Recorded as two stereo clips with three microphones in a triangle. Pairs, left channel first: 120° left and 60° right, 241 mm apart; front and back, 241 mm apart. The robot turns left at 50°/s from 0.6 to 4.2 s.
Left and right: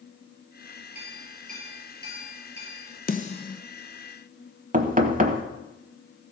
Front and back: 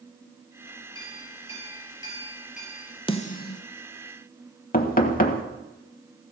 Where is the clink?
25° left, 4 m; by 2.9 s 75° right, 4 m.